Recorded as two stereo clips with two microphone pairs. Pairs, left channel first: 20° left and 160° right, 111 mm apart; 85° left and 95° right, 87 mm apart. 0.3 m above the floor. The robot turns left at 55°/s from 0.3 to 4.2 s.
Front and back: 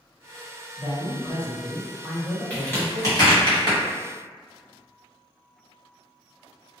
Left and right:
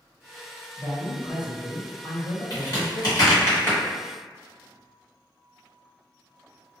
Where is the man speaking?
160° left, 1.0 m; by 3.5 s 10° left, 1.0 m.